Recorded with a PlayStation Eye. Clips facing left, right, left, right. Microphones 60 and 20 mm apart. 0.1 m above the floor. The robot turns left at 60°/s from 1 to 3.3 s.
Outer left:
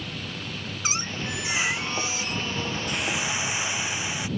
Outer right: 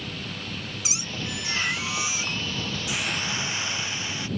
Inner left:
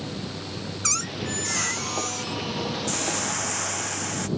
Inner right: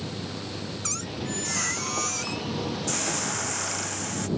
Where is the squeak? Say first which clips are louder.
Outer left 6 dB, inner left 7 dB; 45° left; by 3.9 s 95° right.